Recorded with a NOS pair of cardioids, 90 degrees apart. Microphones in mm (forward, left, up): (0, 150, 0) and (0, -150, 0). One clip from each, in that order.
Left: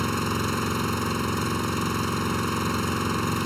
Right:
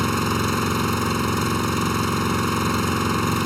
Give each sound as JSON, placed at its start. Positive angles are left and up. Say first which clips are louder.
{"t": 0.0, "sound": "an engine running", "louder": "right 4 dB", "azimuth_deg": -30}